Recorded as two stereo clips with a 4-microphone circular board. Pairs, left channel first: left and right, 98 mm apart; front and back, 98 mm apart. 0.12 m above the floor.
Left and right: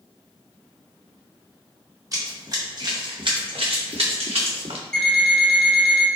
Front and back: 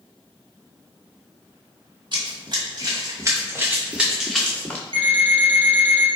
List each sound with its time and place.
2.1 s running footsteps: 145° right, 1.8 m; by 4.8 s 75° right, 1.2 m
4.9 s an alarm clock: 175° left, 1.3 m